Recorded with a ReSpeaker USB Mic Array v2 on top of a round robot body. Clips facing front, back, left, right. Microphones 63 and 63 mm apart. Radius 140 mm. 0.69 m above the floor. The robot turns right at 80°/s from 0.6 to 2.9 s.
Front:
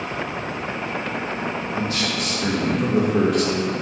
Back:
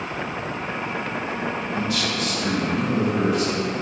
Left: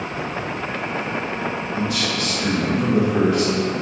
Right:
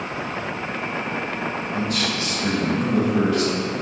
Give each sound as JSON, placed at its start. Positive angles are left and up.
{"t": 1.7, "sound": "a man speaking", "azimuth_deg": -70, "distance_m": 3.0}